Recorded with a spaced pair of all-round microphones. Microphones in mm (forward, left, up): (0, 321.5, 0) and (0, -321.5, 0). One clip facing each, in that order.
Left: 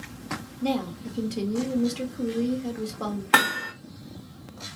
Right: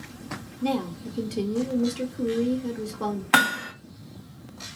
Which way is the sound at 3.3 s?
15° right (ahead or behind).